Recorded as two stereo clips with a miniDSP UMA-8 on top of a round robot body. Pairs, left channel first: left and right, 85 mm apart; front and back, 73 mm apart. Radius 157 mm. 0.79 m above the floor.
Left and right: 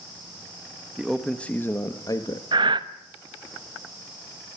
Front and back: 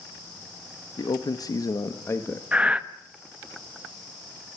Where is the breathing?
105° right, 1.3 m.